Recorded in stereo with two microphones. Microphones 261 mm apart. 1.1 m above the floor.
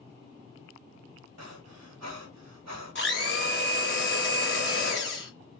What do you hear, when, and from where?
1.4 s breathing: 80° right, 0.9 m
3.0 s a blender: 45° left (ahead or behind), 1.8 m